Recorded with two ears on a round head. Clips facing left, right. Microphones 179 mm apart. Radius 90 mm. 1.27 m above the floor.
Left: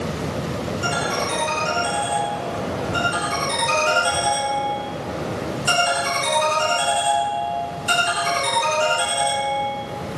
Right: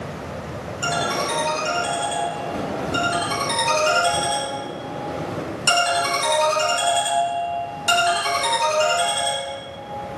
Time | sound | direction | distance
0.8 | a ringtone | 65° right (ahead or behind) | 1.7 m